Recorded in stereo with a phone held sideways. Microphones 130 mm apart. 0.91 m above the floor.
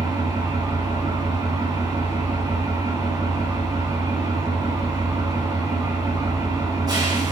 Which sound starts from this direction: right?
An engine running, at 0.0 s.